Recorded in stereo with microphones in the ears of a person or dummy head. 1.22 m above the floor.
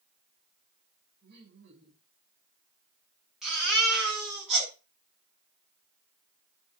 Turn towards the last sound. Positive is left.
turn(degrees=5)  # may be behind; listen again after turning